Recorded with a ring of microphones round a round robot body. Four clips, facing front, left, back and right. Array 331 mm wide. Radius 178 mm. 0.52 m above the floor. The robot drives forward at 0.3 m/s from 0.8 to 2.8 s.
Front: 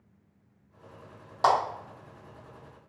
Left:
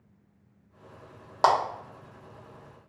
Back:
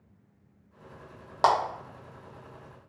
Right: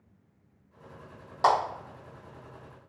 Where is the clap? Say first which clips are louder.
Left 1 dB, even; 130° left, 1.1 m.